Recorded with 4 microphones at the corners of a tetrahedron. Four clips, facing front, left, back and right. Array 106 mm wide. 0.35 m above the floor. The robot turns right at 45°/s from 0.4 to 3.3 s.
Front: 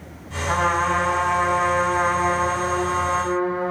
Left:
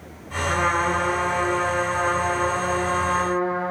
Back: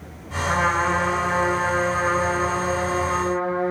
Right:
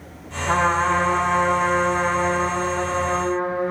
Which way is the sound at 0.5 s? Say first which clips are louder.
Right 3 dB, front 1 dB; 65° right.